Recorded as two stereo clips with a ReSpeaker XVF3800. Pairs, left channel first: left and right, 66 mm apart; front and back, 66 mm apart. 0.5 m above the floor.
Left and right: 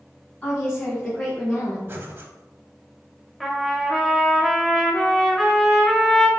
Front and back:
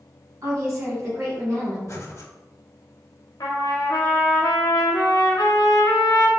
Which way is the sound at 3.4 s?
5° left.